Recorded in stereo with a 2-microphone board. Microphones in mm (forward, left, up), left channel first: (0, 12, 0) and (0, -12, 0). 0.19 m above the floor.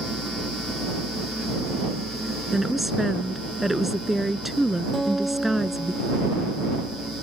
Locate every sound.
2.5 s a woman speaking: 5° right (ahead or behind)
4.9 s a guitar: 5° right (ahead or behind)